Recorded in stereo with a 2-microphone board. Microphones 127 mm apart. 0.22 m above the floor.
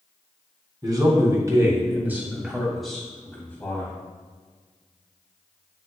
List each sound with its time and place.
0.8 s a man speaking: 35° right (ahead or behind), 2.0 m; by 3.9 s 20° left (ahead or behind), 1.8 m